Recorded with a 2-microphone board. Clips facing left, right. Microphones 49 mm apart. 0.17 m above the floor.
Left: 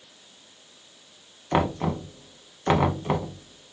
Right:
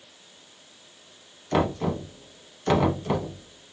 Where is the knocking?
25° left (ahead or behind), 0.7 m.